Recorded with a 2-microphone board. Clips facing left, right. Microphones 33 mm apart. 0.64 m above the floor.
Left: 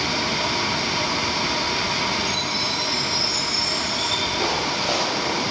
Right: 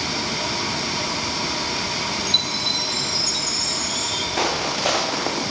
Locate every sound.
2.3 s a chime: 75° right (ahead or behind), 4.5 m
4.4 s footsteps: 65° right (ahead or behind), 9.5 m; by 5.4 s 60° right (ahead or behind), 9.5 m